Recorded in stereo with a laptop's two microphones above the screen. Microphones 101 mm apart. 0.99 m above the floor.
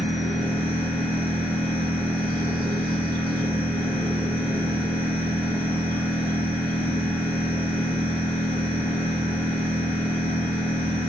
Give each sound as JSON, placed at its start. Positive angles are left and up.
{"t": 0.0, "sound": "a machine running", "side_deg": -65, "distance_m": 1.6}